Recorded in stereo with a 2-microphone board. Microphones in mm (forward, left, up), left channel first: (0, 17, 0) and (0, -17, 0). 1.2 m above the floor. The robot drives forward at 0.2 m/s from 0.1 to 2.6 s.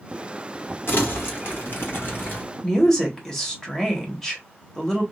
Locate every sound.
0.9 s crumpling: 75° left (ahead or behind), 1.4 m; by 2.4 s 80° left, 1.4 m
2.6 s a woman speaking: 15° left (ahead or behind), 1.3 m